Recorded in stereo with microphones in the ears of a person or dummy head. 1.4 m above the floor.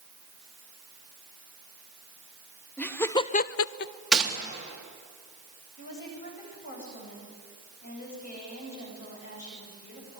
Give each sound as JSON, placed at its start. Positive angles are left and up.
{"t": 2.8, "sound": "laughter", "side_deg": 5, "distance_m": 1.2}
{"t": 4.1, "sound": "a gunshot", "side_deg": 0, "distance_m": 3.5}
{"t": 5.8, "sound": "a woman speaking", "side_deg": 45, "distance_m": 8.5}